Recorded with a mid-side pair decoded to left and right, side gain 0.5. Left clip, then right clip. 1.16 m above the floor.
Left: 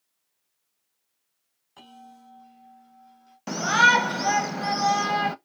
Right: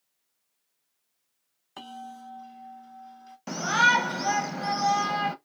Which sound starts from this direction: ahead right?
A bell, at 1.8 s.